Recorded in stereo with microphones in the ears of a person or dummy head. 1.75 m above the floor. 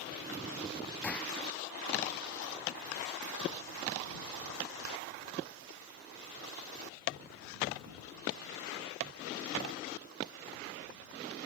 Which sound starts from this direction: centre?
A gunshot, at 1.0 s.